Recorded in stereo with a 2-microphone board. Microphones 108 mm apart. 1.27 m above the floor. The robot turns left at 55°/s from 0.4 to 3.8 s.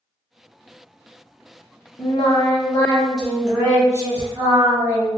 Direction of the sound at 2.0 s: 75° left.